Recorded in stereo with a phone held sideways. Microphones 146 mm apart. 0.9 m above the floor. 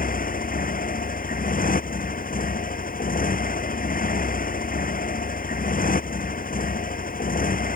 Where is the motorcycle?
75° left (ahead or behind).